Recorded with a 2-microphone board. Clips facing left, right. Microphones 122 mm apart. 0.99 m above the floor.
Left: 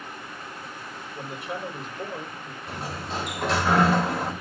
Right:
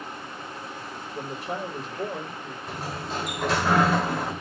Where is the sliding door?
Centre (ahead or behind), 1.6 m.